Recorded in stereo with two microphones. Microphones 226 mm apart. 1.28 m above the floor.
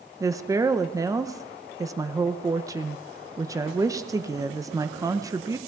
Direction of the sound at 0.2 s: 15° right (ahead or behind).